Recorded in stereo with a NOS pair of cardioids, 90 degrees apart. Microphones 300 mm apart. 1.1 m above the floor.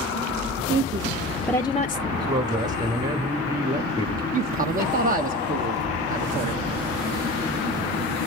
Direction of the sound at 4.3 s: 30° right.